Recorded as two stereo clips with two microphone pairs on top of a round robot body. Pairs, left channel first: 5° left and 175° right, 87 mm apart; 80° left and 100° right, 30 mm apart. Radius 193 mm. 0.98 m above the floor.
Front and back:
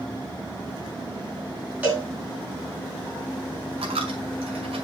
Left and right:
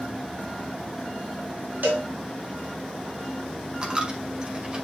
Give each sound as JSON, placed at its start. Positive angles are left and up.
{"t": 1.8, "sound": "a cowbell", "azimuth_deg": -100, "distance_m": 2.5}
{"t": 3.8, "sound": "a dropped coin", "azimuth_deg": -170, "distance_m": 2.0}